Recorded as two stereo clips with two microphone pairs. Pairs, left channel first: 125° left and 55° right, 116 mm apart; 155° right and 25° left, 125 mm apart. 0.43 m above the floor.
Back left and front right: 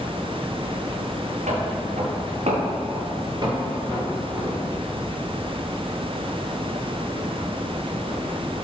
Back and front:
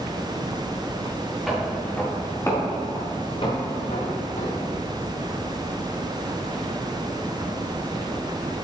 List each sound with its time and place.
1.5 s footsteps: 60° right, 3 m; by 4.7 s 135° right, 3 m